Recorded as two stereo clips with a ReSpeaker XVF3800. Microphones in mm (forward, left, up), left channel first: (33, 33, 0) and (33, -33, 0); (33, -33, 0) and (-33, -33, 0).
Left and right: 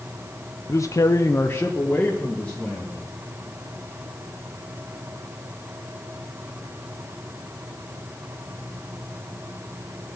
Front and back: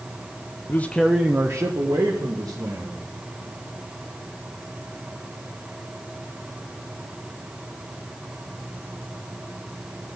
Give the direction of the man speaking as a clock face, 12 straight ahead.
10 o'clock.